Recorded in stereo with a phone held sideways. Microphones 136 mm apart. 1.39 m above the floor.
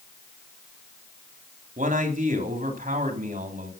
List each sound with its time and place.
1.8 s a man speaking: 65° right (ahead or behind), 3.5 m